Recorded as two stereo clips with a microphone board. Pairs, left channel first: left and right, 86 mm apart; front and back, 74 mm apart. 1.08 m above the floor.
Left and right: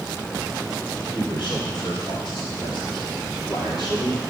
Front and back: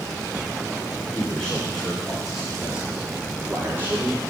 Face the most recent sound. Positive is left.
turn(degrees=125)